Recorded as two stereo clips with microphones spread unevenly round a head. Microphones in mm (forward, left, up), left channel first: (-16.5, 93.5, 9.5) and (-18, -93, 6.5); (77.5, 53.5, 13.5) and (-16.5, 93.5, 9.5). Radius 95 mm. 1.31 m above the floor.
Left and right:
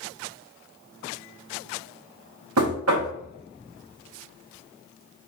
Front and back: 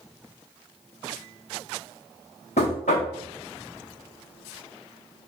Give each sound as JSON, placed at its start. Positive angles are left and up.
{"t": 2.6, "sound": "knocking", "azimuth_deg": -75, "distance_m": 1.0}